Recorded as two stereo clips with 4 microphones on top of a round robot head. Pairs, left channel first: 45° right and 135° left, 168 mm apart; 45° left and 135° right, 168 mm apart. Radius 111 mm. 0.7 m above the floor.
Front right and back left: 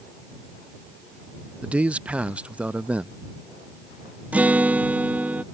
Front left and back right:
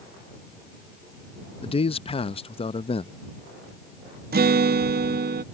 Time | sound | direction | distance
1.6 | a man speaking | 60° left | ?
4.3 | a guitar | 140° right | ?